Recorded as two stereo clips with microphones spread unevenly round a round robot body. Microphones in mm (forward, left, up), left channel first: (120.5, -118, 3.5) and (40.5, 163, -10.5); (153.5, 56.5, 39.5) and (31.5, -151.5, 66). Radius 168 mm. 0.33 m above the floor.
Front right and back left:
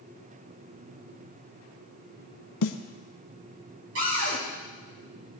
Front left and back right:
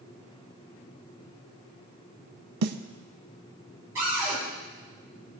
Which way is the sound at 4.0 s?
155° left.